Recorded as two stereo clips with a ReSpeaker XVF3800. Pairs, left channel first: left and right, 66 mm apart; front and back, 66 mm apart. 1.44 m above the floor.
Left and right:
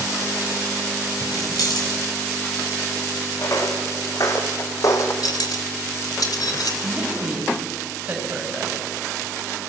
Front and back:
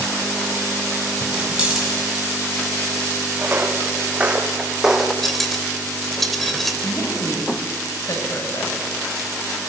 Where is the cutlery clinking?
85° left, 3 m.